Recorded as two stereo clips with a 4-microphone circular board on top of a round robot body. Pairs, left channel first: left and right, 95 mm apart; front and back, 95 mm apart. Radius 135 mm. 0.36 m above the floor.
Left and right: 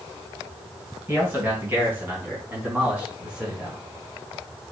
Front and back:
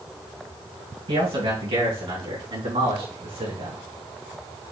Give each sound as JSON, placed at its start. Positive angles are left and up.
{"t": 1.1, "sound": "a man speaking", "azimuth_deg": -155, "distance_m": 4.5}